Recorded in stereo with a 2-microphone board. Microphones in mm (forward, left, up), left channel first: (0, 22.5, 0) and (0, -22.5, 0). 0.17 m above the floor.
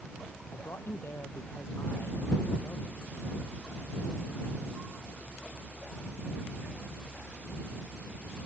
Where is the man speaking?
70° left (ahead or behind).